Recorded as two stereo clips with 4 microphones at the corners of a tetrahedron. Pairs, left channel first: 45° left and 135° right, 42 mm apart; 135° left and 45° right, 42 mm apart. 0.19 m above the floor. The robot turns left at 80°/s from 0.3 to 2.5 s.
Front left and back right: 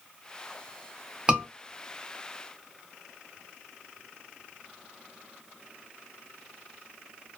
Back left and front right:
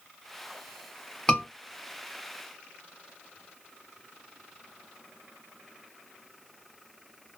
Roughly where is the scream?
Behind.